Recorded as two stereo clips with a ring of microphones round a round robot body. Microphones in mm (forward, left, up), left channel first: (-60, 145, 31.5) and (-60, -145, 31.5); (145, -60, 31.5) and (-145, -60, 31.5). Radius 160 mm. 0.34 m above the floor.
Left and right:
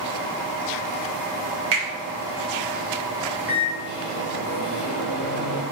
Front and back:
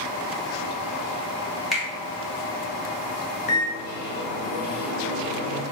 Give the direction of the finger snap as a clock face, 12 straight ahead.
3 o'clock.